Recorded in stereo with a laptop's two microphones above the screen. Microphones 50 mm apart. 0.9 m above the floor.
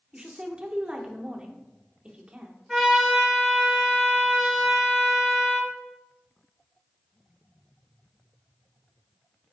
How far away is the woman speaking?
About 0.6 m.